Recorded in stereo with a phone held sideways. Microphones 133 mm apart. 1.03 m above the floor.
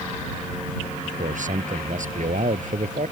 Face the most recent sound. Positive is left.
turn(degrees=-70)  # may be behind; listen again after turning